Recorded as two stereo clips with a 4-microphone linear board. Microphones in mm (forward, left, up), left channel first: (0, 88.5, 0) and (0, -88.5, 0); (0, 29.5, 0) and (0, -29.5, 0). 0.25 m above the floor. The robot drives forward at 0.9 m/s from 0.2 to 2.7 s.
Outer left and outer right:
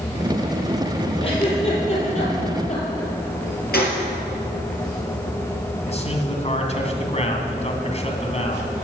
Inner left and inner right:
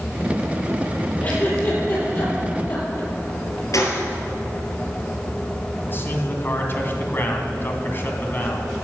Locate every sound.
1.2 s a giggle: 30° left (ahead or behind), 5.5 m; by 3.1 s 40° left (ahead or behind), 4.5 m
3.7 s a gunshot: 65° left (ahead or behind), 3 m
5.9 s a man speaking: 40° left (ahead or behind), 2.5 m